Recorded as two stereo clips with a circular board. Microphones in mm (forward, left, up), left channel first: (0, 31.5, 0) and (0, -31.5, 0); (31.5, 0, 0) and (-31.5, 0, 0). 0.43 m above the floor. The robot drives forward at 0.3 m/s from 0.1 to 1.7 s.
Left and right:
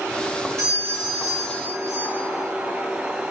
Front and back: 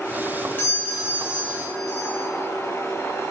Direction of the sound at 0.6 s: 50° right.